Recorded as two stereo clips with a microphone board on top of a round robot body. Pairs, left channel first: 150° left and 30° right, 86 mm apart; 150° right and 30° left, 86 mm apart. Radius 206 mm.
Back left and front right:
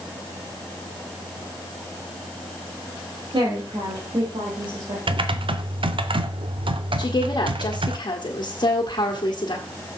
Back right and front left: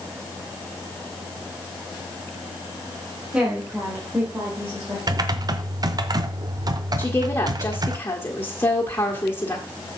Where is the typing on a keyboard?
15° right, 0.6 m.